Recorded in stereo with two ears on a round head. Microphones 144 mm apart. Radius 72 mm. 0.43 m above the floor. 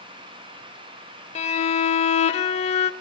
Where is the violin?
40° left (ahead or behind), 0.8 m.